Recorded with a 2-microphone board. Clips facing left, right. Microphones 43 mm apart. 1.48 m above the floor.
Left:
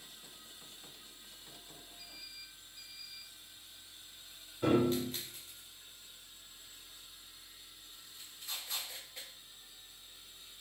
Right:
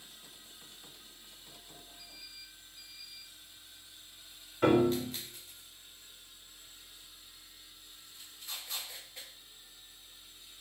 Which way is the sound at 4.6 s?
75° right (ahead or behind).